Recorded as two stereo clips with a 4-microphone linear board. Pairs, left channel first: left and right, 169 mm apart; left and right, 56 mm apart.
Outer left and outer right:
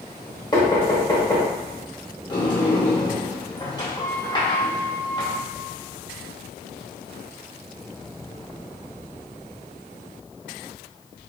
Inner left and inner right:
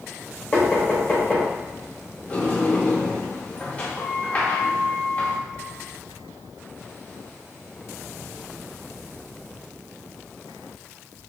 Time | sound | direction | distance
0.5 | knocking | 25° left (ahead or behind) | 0.9 m
2.3 | a sliding door | 25° left (ahead or behind) | 0.8 m